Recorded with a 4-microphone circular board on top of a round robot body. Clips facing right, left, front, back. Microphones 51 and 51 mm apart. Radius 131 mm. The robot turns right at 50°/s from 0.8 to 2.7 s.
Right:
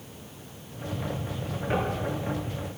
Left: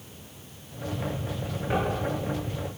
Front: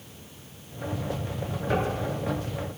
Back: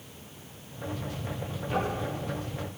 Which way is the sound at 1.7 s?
5° right.